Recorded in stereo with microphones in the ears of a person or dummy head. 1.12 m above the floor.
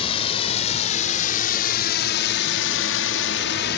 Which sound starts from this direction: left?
A drone, at 0.0 s.